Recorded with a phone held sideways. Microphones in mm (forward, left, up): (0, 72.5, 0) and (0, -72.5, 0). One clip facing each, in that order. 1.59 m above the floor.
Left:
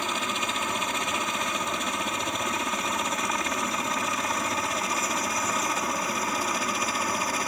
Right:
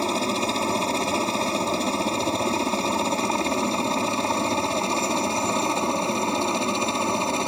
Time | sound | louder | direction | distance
0.0 | a helicopter | right 7 dB | 35° right (ahead or behind) | ?